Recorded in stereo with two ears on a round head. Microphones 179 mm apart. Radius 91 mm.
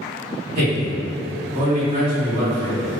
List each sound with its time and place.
0.6 s a man speaking: 30° right (ahead or behind), 1.8 m